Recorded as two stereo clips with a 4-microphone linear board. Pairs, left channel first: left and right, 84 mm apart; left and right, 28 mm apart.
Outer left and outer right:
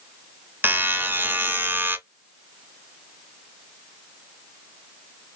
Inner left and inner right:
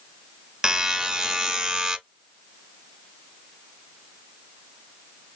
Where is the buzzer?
25° right (ahead or behind), 0.6 m.